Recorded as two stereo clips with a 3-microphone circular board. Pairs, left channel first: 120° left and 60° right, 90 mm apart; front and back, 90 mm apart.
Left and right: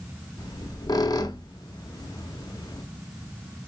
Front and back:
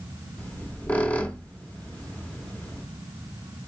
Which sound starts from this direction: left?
A squeak, at 0.4 s.